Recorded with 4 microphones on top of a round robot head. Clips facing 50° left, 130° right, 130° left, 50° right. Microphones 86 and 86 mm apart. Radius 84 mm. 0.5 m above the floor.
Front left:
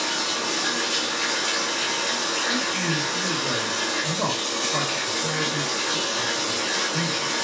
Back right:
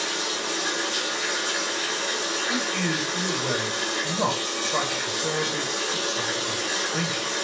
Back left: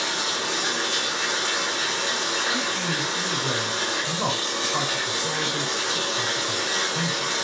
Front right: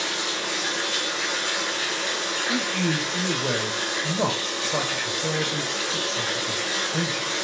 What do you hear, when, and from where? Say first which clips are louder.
0.0 s running water: front left 2 dB, back left 1 dB; 65° left, 1.2 m
2.5 s a man speaking: back right 1 dB, front right 2 dB; 40° right, 2.5 m